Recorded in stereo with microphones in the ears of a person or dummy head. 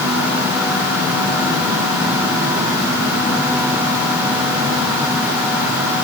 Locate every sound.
Only background noise.